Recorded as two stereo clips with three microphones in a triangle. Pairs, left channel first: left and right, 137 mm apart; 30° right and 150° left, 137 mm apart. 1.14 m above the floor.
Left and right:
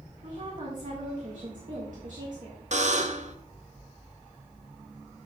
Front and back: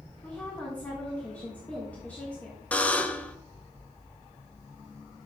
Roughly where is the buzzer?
Right.